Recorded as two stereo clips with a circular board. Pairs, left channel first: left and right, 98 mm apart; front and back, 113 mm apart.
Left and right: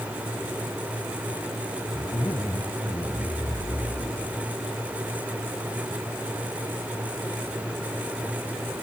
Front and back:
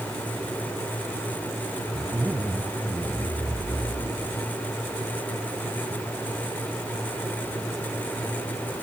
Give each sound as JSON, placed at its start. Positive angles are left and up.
{"t": 1.9, "sound": "a zipper", "azimuth_deg": 120}